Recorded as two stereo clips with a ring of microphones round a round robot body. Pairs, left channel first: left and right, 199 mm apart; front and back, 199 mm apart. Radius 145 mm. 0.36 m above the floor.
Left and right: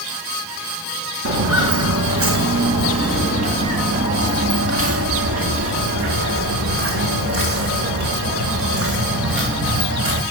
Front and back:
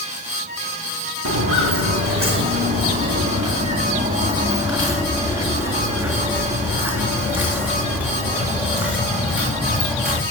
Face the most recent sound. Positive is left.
turn(degrees=-85)